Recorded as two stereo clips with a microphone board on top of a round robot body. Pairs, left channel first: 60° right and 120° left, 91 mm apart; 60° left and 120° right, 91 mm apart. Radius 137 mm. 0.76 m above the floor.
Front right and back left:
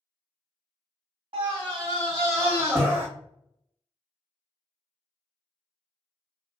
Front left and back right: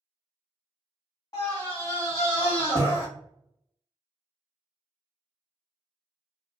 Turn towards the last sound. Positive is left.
turn(degrees=55)